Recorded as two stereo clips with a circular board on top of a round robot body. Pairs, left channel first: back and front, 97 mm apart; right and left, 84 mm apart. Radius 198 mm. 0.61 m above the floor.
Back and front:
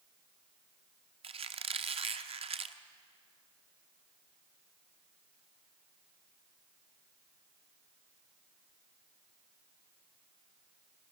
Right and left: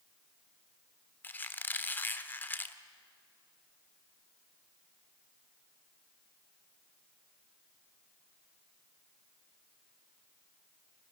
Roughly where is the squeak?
Ahead.